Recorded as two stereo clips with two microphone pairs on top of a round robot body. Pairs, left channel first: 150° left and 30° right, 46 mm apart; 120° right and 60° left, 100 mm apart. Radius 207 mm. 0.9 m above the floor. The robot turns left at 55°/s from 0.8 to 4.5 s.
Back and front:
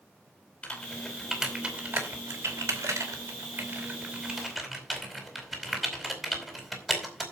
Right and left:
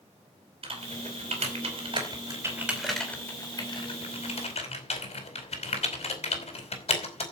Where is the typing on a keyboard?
85° left, 4.5 m; by 7.2 s 120° right, 4.5 m.